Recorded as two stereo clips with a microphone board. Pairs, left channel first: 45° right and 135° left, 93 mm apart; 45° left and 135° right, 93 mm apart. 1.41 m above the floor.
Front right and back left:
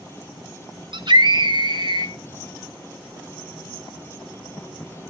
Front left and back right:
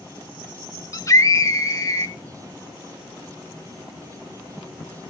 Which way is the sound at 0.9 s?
100° left.